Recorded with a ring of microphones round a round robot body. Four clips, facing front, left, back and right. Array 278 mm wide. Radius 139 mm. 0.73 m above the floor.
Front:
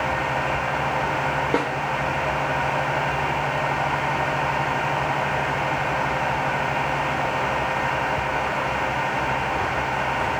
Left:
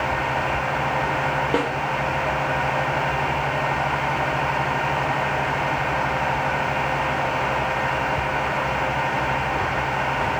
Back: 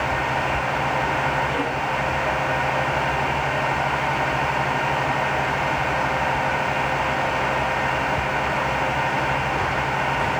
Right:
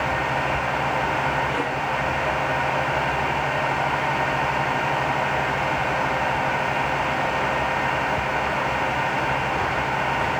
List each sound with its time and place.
1.5 s a snare drum: 40° left, 4.5 m